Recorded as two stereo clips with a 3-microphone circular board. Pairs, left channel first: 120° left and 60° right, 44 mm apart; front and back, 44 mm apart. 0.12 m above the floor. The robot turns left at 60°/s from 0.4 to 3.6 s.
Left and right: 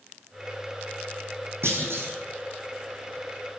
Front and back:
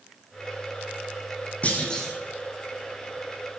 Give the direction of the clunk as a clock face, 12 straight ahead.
2 o'clock.